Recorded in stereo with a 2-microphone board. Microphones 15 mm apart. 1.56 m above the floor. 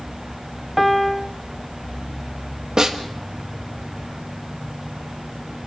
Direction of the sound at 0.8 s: 5° right (ahead or behind).